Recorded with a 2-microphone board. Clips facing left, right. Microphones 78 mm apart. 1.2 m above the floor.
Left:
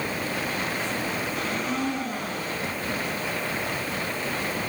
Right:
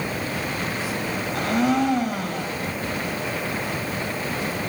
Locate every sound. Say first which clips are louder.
1.3 s a blender: right 7 dB; 75° right (ahead or behind), 9 m